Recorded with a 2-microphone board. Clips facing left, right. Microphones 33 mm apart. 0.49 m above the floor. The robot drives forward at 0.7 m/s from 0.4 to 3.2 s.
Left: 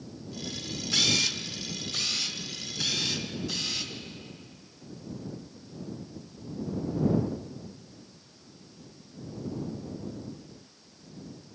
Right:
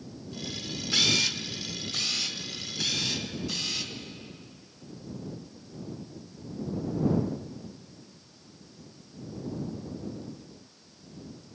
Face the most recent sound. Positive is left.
turn(degrees=-5)  # may be behind; listen again after turning